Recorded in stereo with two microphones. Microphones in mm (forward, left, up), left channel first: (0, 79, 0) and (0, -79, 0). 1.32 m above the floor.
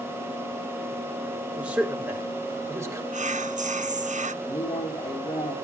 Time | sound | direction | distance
1.6 | a man speaking | 10° right (ahead or behind) | 5 m
3.1 | whispering | 50° right (ahead or behind) | 0.7 m
4.4 | a man speaking | 35° left (ahead or behind) | 4 m